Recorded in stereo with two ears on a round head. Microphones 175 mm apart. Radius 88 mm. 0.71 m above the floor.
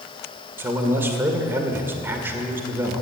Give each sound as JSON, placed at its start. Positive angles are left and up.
{"t": 0.6, "sound": "a man speaking", "side_deg": -10, "distance_m": 2.0}